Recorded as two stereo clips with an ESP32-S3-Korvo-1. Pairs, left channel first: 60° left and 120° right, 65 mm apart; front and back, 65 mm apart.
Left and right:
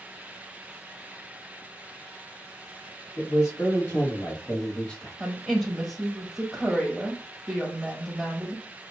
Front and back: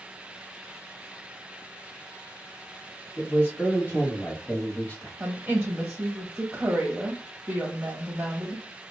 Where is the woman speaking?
135° left, 1.1 m.